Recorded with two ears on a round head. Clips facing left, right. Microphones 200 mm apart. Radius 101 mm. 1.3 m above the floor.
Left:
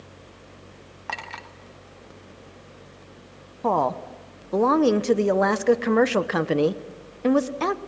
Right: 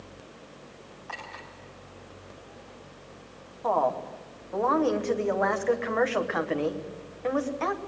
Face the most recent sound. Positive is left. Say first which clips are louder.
# left 3 dB
turn(degrees=60)  # may be behind; listen again after turning